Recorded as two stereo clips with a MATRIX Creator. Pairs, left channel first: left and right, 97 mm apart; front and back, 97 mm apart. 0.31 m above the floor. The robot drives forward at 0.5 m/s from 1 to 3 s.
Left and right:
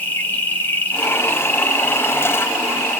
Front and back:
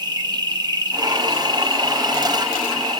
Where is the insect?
155° left, 1.1 m; by 3.0 s 170° left, 2.0 m.